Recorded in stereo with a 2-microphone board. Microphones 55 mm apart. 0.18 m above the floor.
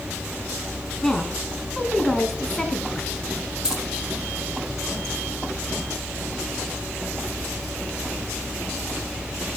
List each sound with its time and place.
1.0 s a woman speaking: 10° left (ahead or behind), 2 m
3.6 s keys jangling: 15° right (ahead or behind), 3.5 m